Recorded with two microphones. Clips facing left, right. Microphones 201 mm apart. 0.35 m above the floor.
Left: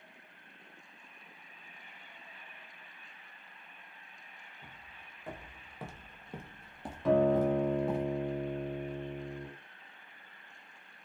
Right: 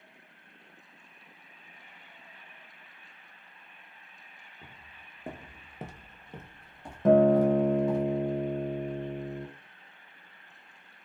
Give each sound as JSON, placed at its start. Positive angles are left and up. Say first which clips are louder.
{"t": 4.6, "sound": "footsteps", "louder": "right 3 dB", "side_deg": -65, "distance_m": 0.9}
{"t": 7.0, "sound": "a guitar", "louder": "right 6 dB", "side_deg": -50, "distance_m": 0.6}